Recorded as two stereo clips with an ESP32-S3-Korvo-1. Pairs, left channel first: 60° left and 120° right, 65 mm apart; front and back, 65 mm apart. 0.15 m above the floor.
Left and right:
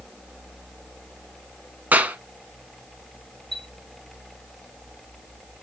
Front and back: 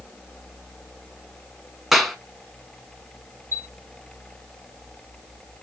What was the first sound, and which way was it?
A clap, 95° right.